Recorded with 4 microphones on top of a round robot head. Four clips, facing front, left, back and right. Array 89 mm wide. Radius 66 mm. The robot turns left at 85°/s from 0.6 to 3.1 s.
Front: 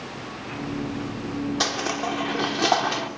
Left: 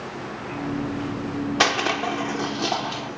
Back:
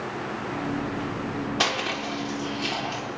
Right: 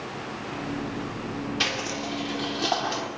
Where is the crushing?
95° left, 3 m; by 3.1 s 30° right, 3 m.